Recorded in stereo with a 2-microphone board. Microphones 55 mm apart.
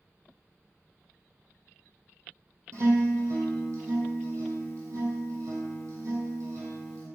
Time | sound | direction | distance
2.7 | a guitar | 65° right (ahead or behind) | 2.5 m